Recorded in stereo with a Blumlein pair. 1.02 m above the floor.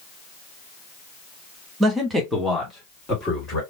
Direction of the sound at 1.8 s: 20° right.